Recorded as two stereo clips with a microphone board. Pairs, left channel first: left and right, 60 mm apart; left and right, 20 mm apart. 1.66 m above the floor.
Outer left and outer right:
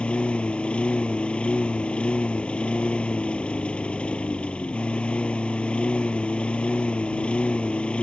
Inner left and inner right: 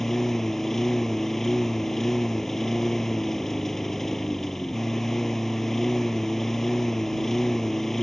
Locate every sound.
0.0 s a lawn mower: 20° left (ahead or behind)